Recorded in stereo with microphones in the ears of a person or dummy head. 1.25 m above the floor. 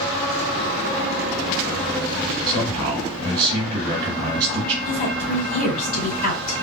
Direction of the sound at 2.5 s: 45° right (ahead or behind).